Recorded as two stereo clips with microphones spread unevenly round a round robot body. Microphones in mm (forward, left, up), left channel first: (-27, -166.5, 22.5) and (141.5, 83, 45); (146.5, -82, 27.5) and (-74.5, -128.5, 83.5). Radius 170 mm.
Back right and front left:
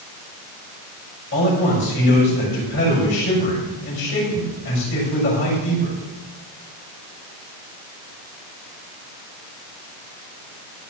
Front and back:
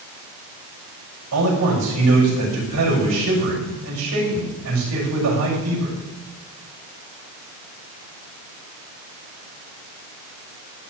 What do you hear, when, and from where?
1.3 s a man speaking: 175° left, 5 m